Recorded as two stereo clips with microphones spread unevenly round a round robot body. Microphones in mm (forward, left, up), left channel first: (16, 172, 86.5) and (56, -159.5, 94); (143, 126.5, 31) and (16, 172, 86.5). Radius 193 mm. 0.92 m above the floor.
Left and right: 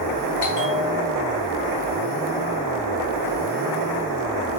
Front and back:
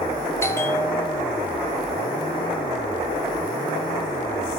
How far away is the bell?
About 1.4 m.